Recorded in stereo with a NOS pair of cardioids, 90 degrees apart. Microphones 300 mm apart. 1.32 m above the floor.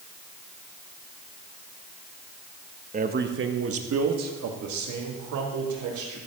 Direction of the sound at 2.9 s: 25° right.